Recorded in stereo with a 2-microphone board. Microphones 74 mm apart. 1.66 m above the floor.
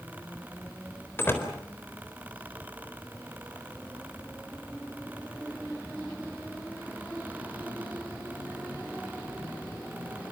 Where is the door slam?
30° left (ahead or behind), 4 m.